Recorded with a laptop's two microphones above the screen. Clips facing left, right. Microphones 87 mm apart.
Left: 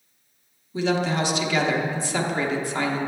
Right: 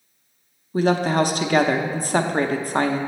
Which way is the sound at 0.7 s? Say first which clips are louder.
Right 4 dB; 45° right (ahead or behind).